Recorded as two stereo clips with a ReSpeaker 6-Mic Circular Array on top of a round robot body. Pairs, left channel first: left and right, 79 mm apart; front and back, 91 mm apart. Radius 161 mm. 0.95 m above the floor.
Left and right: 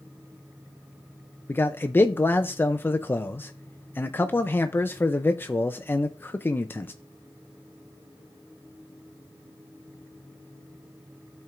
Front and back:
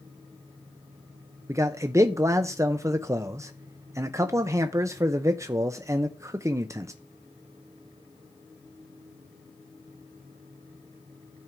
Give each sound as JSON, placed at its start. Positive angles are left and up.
{"t": 1.5, "sound": "a man speaking", "azimuth_deg": 140, "distance_m": 0.6}